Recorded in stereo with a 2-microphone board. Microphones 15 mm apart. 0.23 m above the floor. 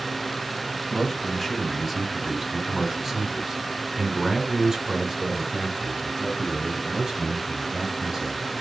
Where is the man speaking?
20° left (ahead or behind), 1.4 m; by 8.5 s 35° right (ahead or behind), 4.5 m.